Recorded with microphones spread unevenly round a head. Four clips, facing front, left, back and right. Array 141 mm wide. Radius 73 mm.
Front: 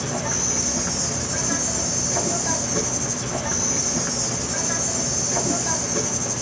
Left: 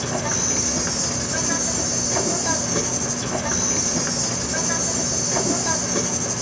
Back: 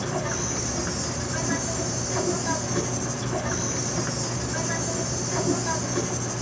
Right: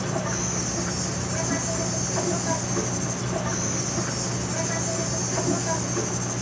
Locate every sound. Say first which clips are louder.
0.0 s an insect: left 2 dB, front 1 dB; 60° left, 3 m